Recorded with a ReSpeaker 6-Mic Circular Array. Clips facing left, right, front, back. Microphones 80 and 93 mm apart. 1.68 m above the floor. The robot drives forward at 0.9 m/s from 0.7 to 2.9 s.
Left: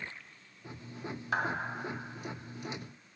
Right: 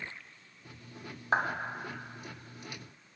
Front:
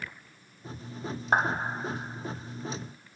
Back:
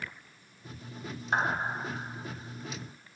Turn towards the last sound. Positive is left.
turn(degrees=-70)